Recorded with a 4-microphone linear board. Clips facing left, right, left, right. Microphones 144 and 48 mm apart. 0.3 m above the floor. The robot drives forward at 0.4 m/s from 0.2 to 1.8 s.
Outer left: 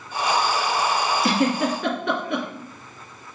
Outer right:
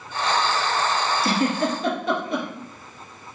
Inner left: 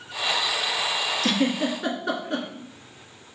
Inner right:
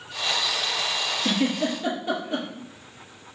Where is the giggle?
80° left, 1.8 m; by 2.5 s 75° left (ahead or behind), 1.8 m.